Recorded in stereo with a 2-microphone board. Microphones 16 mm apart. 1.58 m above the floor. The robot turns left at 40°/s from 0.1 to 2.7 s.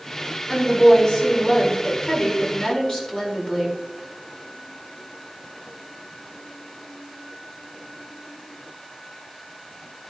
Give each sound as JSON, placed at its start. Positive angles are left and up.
{"t": 0.5, "sound": "a woman speaking", "azimuth_deg": 145, "distance_m": 4.0}